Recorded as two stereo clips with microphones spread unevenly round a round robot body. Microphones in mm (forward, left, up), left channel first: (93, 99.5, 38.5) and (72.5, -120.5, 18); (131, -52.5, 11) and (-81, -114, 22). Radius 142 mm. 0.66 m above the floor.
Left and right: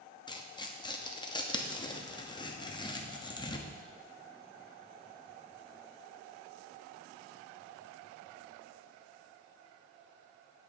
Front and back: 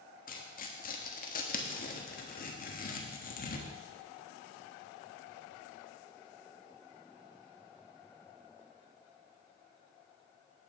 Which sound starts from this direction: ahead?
Tearing paper, at 0.3 s.